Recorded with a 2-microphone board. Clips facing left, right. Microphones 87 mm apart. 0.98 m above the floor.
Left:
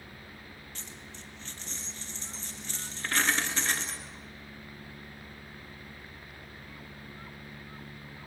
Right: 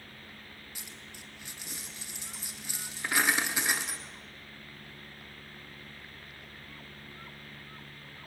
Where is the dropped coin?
10° right (ahead or behind), 1.8 m.